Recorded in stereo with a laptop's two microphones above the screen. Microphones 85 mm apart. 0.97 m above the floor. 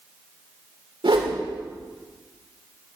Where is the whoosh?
85° right, 2.5 m.